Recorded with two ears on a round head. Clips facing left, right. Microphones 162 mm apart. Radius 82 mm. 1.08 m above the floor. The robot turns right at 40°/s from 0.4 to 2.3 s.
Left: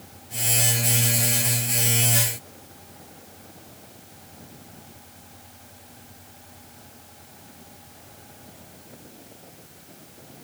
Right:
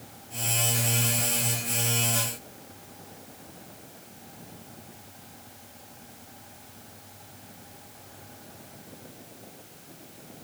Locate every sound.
Only background noise.